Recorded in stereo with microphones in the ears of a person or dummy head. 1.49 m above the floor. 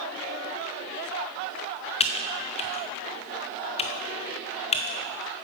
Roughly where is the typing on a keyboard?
Left.